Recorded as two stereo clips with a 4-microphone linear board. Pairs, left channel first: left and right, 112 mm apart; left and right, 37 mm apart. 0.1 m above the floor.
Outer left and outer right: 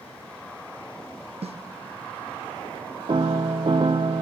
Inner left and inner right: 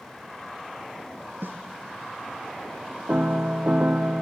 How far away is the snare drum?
About 1.0 m.